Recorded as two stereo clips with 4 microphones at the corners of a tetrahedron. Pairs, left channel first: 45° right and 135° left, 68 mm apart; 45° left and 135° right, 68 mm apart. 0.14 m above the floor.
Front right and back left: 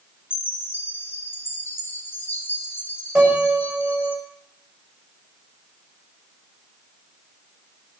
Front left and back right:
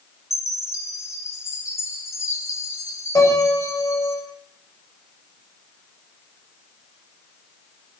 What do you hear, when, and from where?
0.3 s a chime: 10° left, 4.5 m
3.1 s a piano: 65° left, 7 m